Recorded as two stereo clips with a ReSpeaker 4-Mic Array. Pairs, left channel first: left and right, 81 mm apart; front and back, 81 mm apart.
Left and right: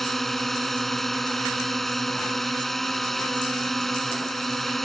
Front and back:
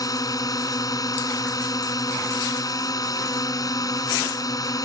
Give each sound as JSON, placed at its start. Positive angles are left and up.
{"t": 0.0, "sound": "a drone", "azimuth_deg": 5}